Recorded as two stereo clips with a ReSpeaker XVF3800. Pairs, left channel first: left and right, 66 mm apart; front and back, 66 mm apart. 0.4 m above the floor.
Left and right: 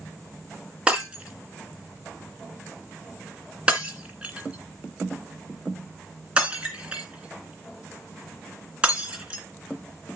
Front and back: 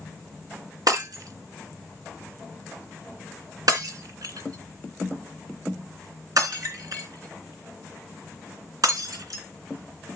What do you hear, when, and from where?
0.9 s breaking glass: 160° right, 2 m